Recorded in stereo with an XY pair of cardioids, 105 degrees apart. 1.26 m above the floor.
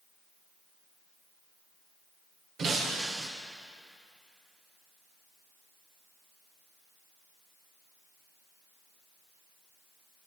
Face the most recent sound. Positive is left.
turn(degrees=-65)